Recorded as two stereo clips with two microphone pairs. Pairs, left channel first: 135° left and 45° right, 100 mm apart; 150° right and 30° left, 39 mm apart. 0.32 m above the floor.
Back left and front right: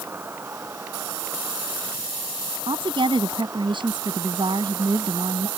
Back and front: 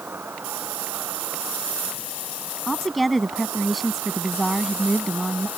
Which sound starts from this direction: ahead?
An insect, at 0.0 s.